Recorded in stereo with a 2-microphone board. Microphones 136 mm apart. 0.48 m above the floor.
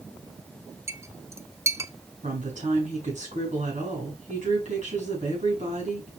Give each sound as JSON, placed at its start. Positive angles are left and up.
{"t": 0.9, "sound": "a clink", "side_deg": -20, "distance_m": 0.5}
{"t": 2.2, "sound": "a woman speaking", "side_deg": -60, "distance_m": 4.5}